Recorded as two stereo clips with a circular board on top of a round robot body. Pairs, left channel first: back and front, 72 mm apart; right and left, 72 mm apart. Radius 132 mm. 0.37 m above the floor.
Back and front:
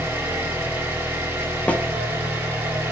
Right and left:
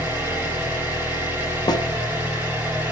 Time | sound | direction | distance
0.0 | an engine running | 40° left | 1.4 m
1.7 | a snare drum | 110° right | 0.5 m